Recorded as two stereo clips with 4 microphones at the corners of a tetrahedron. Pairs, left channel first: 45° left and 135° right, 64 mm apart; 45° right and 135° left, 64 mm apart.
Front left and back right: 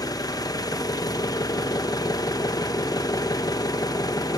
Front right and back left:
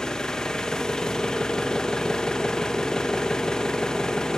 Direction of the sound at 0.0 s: 35° left.